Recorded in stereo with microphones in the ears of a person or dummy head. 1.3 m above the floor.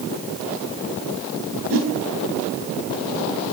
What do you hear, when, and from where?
1.7 s a whoosh: 75° right (ahead or behind), 4 m